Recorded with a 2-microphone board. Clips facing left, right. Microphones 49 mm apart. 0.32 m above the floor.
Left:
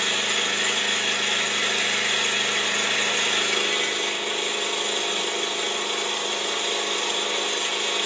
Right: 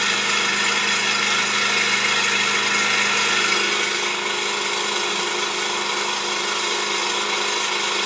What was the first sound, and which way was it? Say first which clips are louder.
An engine running: right 4 dB; 75° right (ahead or behind).